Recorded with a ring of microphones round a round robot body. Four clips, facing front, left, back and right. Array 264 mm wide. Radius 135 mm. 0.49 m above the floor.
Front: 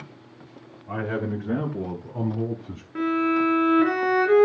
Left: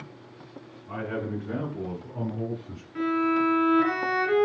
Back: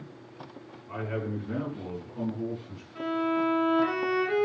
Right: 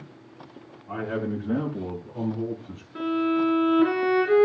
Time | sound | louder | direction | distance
0.9 | a man speaking | right 3 dB, front 5 dB | 10° right | 6.5 m
3.0 | a violin | right 1 dB, front 5 dB | 15° right | 3.5 m